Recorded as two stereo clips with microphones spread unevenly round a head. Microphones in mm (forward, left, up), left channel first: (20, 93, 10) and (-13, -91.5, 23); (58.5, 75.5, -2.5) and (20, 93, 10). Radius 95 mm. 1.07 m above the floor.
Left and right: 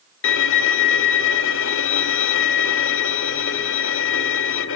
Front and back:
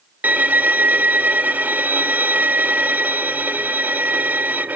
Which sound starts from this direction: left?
A violin, at 0.2 s.